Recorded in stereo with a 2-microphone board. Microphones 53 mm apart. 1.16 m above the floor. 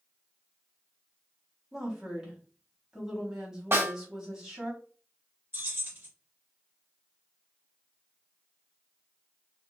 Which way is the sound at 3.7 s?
45° right (ahead or behind).